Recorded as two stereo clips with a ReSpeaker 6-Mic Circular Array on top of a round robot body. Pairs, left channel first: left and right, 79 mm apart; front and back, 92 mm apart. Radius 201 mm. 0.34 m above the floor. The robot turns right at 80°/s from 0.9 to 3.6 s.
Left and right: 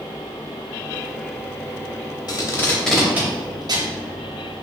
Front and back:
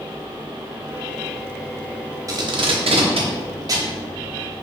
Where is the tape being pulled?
125° left, 0.8 m; by 3.9 s 130° right, 0.8 m.